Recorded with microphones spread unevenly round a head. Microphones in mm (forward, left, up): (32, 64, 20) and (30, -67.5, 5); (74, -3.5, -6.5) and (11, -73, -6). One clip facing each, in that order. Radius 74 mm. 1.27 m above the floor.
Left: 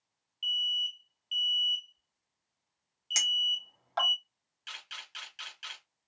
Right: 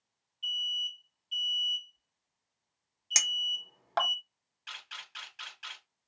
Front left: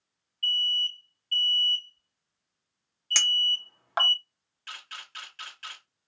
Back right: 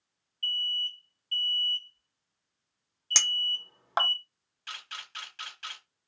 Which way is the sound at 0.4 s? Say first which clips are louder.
Left 2 dB, front left 4 dB; 160° left.